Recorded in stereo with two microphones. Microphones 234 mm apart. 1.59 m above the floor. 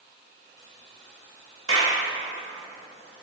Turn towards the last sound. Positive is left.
turn(degrees=-65)  # may be behind; listen again after turning